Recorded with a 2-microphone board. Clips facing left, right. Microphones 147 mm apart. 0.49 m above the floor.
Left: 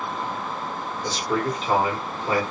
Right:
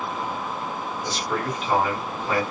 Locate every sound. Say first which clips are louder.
1.0 s a man speaking: left 4 dB; 35° left (ahead or behind), 1.3 m